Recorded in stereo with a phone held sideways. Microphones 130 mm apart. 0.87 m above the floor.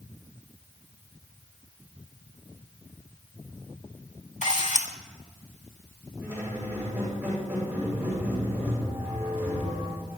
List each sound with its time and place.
4.4 s a camera shutter: 65° left (ahead or behind), 1.8 m
6.2 s a squeak: 15° right (ahead or behind), 8 m